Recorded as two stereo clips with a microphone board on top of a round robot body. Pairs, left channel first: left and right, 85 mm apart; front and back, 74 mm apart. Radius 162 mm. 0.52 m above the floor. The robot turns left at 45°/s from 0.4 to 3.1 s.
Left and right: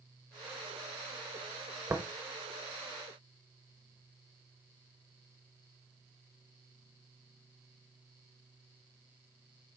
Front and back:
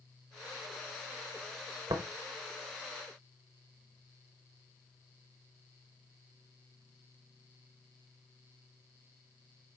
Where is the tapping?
150° right, 1.0 m; by 2.0 s 155° right, 1.0 m.